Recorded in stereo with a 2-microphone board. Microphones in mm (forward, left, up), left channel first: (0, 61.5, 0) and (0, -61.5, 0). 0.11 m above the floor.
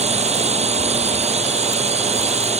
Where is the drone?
60° right (ahead or behind).